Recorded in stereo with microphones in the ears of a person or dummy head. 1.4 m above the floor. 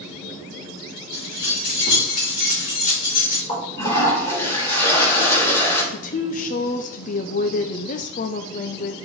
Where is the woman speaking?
35° left (ahead or behind), 0.6 m.